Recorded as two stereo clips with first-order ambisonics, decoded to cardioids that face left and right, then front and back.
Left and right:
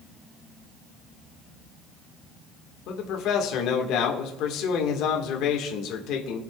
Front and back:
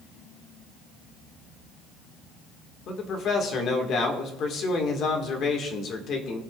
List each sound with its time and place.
2.9 s a man speaking: 55° left, 1.8 m